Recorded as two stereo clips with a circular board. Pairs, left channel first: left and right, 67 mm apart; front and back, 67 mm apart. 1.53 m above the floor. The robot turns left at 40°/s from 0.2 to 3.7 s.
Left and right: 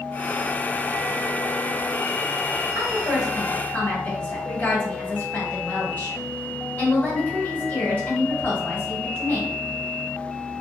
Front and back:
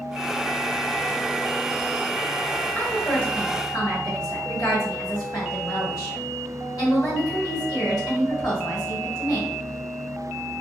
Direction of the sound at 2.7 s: 70° left.